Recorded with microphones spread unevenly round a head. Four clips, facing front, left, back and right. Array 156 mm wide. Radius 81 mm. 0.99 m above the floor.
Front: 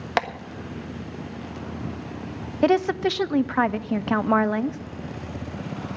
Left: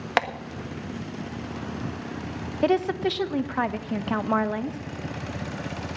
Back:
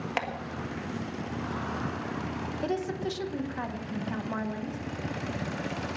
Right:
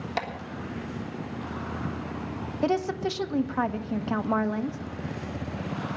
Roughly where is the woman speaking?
Ahead.